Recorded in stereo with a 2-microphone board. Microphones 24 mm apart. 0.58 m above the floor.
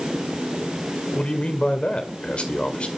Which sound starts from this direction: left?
A man speaking, at 1.1 s.